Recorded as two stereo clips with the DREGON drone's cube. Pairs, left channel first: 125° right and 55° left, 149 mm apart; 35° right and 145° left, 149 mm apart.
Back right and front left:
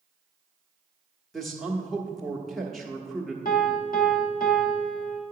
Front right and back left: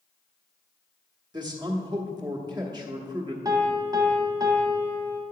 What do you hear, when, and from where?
1.3 s a man speaking: 145° left, 1.1 m
3.5 s a piano: 150° right, 1.0 m